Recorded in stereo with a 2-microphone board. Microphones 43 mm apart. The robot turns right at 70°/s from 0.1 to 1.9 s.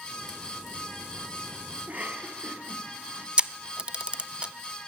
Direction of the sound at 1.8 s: 30° right (ahead or behind).